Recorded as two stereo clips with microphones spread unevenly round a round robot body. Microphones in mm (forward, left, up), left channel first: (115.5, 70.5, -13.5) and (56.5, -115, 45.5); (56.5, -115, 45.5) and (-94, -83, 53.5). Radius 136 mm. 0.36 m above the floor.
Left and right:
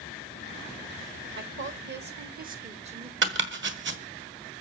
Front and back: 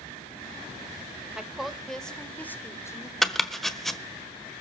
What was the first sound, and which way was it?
A woman speaking, 105° right.